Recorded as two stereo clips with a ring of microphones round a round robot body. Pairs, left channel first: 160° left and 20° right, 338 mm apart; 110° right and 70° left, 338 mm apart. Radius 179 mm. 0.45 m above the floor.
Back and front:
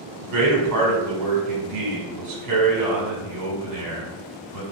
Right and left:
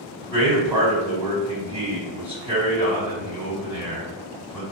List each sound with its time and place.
0.2 s a man speaking: 5° right, 1.8 m